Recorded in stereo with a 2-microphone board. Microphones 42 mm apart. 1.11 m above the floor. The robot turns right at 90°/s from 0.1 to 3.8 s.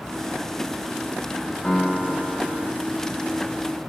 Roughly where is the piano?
Behind left.